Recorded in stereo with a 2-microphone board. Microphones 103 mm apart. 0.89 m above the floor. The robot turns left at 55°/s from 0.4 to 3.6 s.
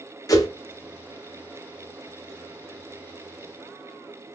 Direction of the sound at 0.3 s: 35° left (ahead or behind).